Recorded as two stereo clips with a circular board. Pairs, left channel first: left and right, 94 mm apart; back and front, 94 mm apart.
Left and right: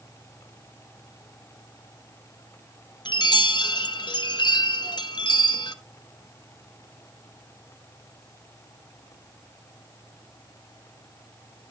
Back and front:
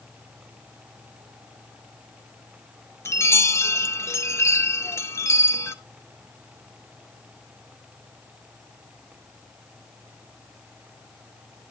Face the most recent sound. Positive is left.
turn(degrees=120)